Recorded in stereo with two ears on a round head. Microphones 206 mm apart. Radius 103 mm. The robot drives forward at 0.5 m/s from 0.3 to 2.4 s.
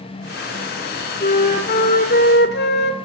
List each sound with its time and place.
1.2 s a flute: 35° left (ahead or behind), 2 m; by 3.0 s 45° left (ahead or behind), 1.8 m